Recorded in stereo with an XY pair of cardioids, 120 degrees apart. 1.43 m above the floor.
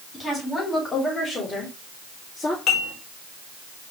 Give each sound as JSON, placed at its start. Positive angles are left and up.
{"t": 0.1, "sound": "a woman speaking", "azimuth_deg": 25, "distance_m": 3.5}
{"t": 2.7, "sound": "dishes clattering", "azimuth_deg": 65, "distance_m": 2.5}